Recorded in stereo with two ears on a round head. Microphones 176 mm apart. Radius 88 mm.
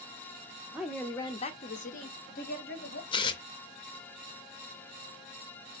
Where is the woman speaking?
10° right (ahead or behind), 0.7 m; by 3.0 s 55° left (ahead or behind), 1.8 m.